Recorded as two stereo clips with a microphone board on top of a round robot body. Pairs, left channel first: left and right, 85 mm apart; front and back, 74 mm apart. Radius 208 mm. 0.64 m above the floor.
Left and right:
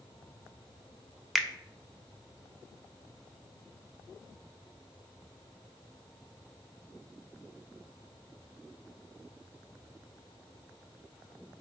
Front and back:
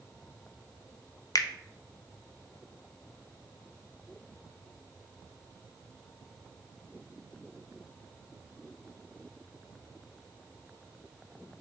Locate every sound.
1.4 s a finger snap: straight ahead, 0.6 m